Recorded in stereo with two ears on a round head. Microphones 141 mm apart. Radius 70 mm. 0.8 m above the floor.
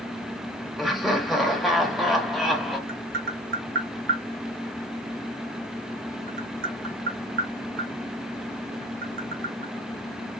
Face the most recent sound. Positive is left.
turn(degrees=-60)  # may be behind; listen again after turning